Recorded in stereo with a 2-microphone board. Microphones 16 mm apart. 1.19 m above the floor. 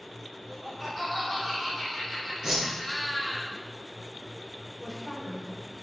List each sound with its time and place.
0.4 s laughter: 10° right (ahead or behind), 5 m; by 3.4 s 30° left (ahead or behind), 4.5 m
2.4 s a whoosh: 40° right (ahead or behind), 4.5 m
4.8 s a woman speaking: centre (ahead or behind), 3.5 m